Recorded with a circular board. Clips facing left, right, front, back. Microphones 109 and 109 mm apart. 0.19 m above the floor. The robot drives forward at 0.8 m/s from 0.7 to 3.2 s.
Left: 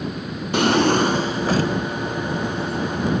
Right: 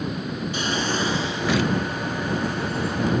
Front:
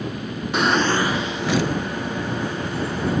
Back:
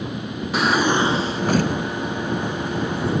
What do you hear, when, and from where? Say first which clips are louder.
0.5 s a drawer: left 11 dB, back 1 dB; 90° left, 0.7 m; by 1.7 s 145° left, 1.1 m